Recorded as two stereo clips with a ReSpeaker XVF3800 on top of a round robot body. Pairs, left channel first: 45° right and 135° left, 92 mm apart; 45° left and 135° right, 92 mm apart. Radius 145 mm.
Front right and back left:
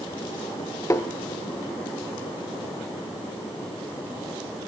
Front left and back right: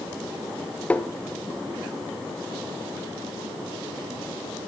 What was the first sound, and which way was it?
Tapping, 20° right.